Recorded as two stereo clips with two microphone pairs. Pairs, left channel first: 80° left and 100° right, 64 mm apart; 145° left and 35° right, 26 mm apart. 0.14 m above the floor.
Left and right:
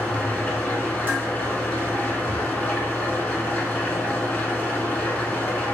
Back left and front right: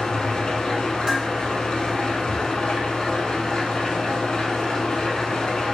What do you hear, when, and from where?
0.0 s an engine running: 125° left, 0.8 m
1.1 s dishes clattering: 60° right, 1.2 m